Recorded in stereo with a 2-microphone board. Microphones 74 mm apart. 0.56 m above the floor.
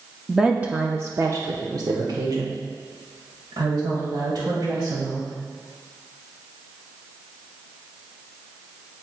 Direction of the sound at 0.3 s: 5° right (ahead or behind).